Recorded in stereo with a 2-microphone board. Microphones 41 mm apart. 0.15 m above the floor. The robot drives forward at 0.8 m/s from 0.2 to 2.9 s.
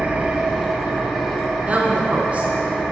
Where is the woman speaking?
35° right (ahead or behind), 1.3 m; by 2.5 s 30° right (ahead or behind), 1.4 m.